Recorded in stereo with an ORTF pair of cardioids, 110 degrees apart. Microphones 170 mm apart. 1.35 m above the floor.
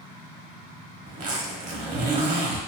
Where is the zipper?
50° right, 0.8 m.